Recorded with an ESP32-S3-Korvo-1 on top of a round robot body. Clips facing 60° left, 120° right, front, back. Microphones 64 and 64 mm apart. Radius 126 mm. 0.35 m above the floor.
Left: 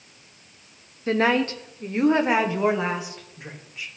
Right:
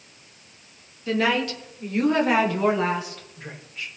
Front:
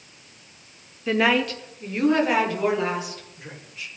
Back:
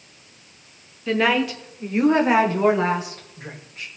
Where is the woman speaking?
80° left, 1.1 m; by 3.9 s 140° left, 2 m.